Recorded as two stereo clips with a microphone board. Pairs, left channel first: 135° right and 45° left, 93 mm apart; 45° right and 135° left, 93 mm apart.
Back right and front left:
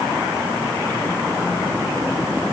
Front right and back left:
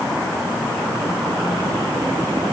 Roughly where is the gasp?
No gasp in this recording.